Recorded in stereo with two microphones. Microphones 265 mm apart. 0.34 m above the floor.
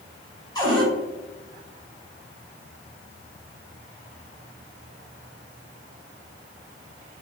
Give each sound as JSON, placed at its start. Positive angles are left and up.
{"t": 0.6, "sound": "a cupboard door", "side_deg": 15, "distance_m": 1.6}